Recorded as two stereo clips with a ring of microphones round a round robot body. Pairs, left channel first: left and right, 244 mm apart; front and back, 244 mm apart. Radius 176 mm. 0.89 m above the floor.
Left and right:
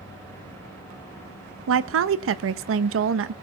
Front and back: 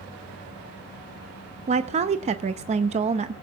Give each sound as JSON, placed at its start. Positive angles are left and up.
{"t": 1.7, "sound": "a woman speaking", "azimuth_deg": -115, "distance_m": 0.6}